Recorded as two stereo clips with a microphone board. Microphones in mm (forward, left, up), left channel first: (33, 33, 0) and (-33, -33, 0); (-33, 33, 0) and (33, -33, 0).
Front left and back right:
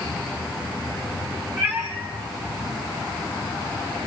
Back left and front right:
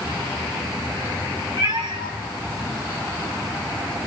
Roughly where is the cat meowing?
Right.